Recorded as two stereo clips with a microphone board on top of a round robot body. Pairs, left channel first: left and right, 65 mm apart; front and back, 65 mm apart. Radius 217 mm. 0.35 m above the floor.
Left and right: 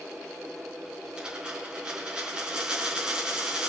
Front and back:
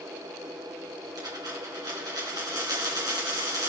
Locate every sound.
1.2 s a dropped coin: 165° right, 4 m